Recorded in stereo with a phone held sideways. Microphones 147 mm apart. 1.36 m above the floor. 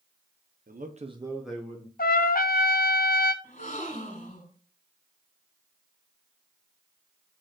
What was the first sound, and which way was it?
A man speaking, 75° right (ahead or behind).